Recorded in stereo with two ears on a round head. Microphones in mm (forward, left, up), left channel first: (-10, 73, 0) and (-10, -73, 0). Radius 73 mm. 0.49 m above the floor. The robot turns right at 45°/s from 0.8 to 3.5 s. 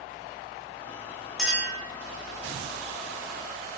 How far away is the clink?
About 0.9 m.